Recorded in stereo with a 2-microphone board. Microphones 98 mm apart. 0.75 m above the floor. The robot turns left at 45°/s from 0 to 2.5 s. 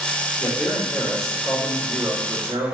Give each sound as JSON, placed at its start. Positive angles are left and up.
{"t": 0.4, "sound": "a man speaking", "azimuth_deg": 40, "distance_m": 2.5}